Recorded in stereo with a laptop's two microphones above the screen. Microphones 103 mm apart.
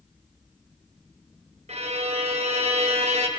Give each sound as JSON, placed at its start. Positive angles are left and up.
{"t": 1.7, "sound": "a violin", "side_deg": -80, "distance_m": 0.6}